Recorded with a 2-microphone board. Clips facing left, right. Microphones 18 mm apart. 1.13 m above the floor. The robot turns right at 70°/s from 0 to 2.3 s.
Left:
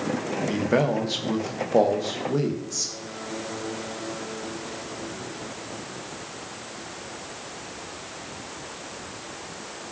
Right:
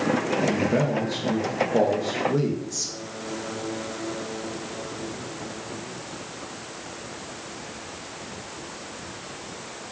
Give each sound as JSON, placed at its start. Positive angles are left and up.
{"t": 0.5, "sound": "a man speaking", "azimuth_deg": 45, "distance_m": 0.5}